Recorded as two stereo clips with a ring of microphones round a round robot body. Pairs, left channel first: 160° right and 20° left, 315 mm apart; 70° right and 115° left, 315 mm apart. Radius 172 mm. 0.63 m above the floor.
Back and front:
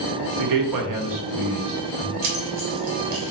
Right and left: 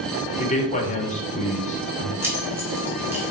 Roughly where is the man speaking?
Ahead.